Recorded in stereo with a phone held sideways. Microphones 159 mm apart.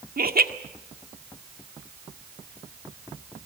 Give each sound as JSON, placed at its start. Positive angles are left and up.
{"t": 0.2, "sound": "laughter", "side_deg": -80, "distance_m": 1.8}